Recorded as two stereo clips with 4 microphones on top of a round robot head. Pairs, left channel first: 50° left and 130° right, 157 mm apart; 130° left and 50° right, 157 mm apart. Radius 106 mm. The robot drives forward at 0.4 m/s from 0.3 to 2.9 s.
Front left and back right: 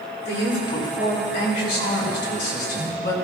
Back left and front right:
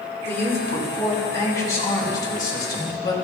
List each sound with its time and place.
0.2 s a man speaking: 55° left, 4.5 m; by 3.1 s 70° left, 4 m